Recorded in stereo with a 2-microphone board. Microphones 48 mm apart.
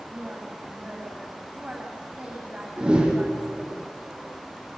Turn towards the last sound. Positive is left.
turn(degrees=-20)  # may be behind; listen again after turning